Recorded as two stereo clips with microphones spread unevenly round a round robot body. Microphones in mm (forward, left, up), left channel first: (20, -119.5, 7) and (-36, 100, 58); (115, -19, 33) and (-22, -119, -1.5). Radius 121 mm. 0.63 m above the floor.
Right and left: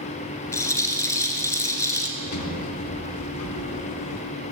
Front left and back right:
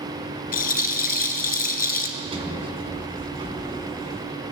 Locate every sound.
0.5 s a rattle: 5° left, 2 m
2.2 s a sliding door: 85° right, 4 m